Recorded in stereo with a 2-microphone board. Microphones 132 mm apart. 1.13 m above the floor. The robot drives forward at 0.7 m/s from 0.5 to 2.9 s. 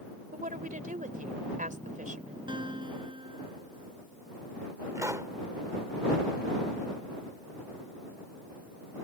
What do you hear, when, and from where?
0.3 s a woman speaking: 85° right; by 2.4 s 75° right (ahead or behind)
2.5 s a guitar: 40° right (ahead or behind)
5.0 s a pop: 25° right (ahead or behind)